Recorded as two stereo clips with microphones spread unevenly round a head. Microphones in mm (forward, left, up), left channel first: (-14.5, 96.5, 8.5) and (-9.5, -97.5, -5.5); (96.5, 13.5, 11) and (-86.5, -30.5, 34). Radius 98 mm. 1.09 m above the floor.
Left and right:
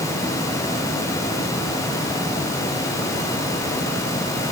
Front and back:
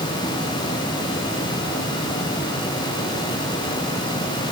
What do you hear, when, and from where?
Only background noise.